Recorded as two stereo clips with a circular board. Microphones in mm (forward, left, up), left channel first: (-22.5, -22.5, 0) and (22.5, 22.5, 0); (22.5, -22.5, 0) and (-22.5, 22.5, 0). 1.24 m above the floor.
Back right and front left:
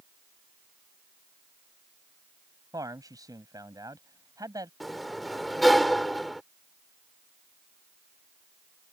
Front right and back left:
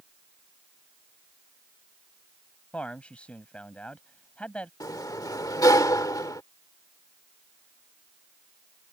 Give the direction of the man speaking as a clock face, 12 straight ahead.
11 o'clock.